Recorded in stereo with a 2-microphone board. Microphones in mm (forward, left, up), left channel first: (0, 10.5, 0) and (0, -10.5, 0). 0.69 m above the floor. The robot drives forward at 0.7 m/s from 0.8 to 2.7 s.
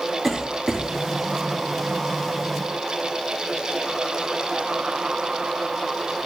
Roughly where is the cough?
Centre.